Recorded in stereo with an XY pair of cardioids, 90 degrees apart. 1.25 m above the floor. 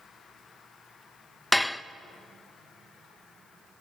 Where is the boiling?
No boiling in this recording.